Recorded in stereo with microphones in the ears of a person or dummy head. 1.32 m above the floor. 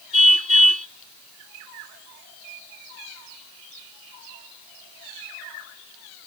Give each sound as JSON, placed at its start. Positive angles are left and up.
{"t": 0.1, "sound": "a car horn", "side_deg": -45}